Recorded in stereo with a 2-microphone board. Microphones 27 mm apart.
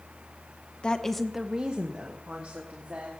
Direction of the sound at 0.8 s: 35° left (ahead or behind).